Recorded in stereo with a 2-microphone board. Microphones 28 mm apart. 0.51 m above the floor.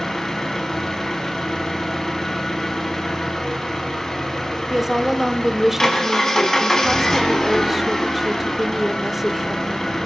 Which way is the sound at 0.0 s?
15° left (ahead or behind).